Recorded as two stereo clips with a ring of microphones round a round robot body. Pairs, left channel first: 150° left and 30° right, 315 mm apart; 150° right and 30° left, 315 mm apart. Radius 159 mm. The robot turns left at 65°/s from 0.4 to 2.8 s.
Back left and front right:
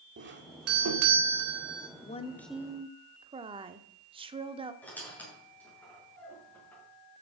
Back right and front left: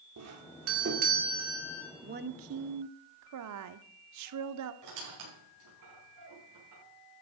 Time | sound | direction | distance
0.2 | a doorbell | 15° left | 1.9 m
2.0 | a woman speaking | 90° left | 0.9 m
4.8 | a squeak | 65° left | 6 m